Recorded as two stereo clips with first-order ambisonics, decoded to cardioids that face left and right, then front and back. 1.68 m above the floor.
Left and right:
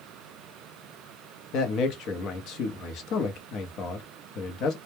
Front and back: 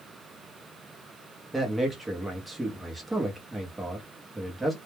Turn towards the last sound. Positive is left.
turn(degrees=100)